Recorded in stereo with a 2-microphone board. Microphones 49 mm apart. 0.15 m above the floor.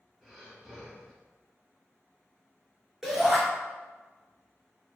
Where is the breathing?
Centre (ahead or behind), 1.5 m.